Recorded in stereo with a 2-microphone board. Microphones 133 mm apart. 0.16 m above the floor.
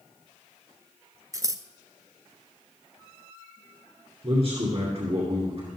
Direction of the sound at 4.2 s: 50° right (ahead or behind).